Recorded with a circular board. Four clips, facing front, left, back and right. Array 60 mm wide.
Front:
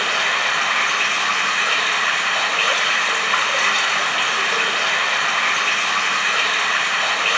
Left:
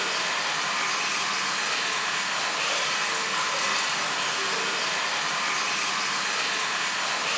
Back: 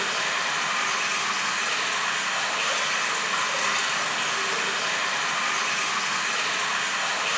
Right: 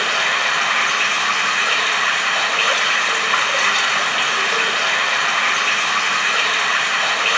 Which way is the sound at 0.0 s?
50° right.